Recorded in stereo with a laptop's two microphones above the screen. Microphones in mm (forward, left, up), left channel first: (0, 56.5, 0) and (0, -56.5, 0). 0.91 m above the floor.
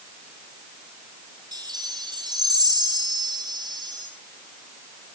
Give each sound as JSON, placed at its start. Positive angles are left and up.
{"t": 1.5, "sound": "a chime", "side_deg": -35, "distance_m": 4.0}